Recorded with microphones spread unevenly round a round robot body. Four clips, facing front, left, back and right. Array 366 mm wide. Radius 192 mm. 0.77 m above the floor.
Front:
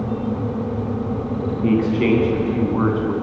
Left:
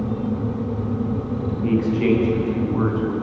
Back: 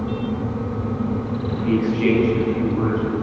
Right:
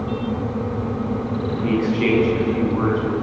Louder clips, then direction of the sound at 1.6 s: Left 1 dB, front 1 dB; 10° right.